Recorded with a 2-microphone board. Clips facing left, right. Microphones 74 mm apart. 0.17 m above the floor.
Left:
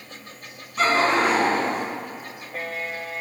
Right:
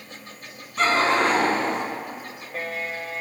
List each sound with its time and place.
0.8 s laughter: centre (ahead or behind), 1.3 m; by 1.8 s 5° left (ahead or behind), 1.8 m